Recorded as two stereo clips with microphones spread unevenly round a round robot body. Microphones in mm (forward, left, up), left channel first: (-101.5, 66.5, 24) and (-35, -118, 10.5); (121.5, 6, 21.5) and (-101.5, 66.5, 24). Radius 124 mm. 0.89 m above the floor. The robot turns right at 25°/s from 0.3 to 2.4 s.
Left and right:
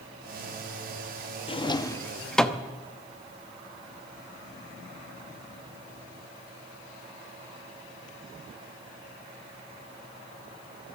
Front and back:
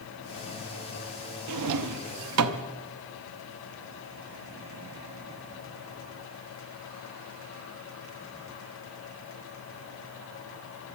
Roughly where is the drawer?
Behind.